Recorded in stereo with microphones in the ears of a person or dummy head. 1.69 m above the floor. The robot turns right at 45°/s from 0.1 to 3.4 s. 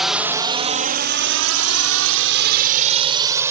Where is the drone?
5° right (ahead or behind); by 3.5 s 15° right (ahead or behind).